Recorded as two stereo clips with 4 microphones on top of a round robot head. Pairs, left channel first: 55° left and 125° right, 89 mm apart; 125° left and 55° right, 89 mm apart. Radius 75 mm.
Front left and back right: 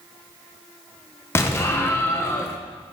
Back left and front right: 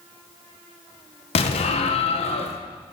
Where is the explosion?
120° left, 1.2 m.